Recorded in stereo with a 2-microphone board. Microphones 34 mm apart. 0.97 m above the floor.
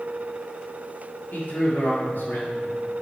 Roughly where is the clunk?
I don't hear a clunk.